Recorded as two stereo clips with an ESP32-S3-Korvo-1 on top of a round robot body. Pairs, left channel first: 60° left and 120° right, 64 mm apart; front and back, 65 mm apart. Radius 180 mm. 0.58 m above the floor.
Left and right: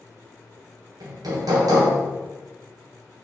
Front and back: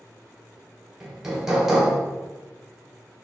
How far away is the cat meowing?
No cat meowing in this recording.